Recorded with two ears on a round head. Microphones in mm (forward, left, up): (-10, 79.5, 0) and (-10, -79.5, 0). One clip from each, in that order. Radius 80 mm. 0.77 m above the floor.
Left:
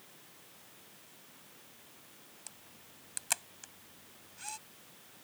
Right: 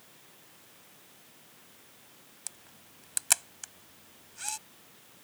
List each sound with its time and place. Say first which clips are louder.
2.5 s a camera shutter: right 8 dB; 30° right (ahead or behind)